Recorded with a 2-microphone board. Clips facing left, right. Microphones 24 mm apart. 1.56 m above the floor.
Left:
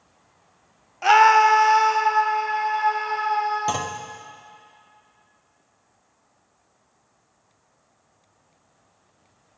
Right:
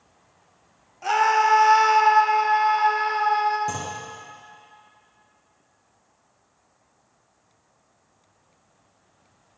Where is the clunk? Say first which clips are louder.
Left 4 dB; 60° left (ahead or behind), 0.7 m.